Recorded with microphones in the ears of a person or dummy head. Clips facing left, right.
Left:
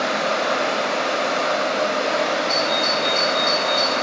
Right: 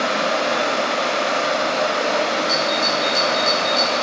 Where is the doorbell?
30° right (ahead or behind), 0.7 m.